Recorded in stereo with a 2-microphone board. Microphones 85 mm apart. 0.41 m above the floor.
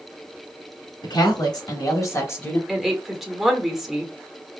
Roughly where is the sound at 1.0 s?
Left.